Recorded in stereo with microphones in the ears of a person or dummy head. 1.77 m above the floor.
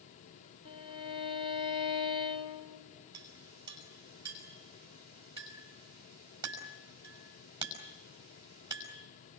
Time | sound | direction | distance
0.7 | a violin | 35° left (ahead or behind) | 1.7 m
3.1 | a clink | 20° right (ahead or behind) | 5 m